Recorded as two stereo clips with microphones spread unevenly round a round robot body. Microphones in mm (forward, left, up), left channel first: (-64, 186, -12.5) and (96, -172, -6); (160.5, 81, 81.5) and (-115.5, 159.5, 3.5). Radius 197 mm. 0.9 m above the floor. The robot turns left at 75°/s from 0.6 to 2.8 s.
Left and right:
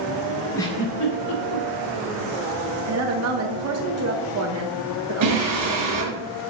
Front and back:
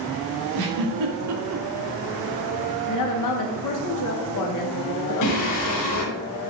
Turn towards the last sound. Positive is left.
turn(degrees=-20)